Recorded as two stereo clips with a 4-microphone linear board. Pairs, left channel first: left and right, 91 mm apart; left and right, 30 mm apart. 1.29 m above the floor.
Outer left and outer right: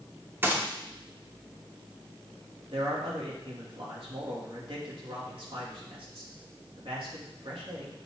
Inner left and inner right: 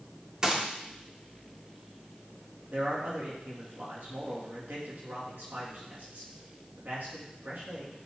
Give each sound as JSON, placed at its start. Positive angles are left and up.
{"t": 0.4, "sound": "a gunshot", "side_deg": -25, "distance_m": 0.9}
{"t": 2.7, "sound": "a man speaking", "side_deg": -75, "distance_m": 2.0}